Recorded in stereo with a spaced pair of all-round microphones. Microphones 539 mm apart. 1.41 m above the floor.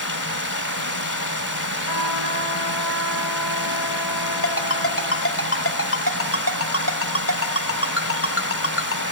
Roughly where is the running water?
Left.